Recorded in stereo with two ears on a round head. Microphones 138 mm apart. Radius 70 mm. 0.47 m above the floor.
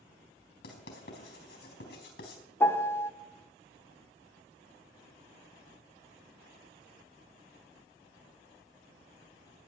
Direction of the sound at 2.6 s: 15° left (ahead or behind).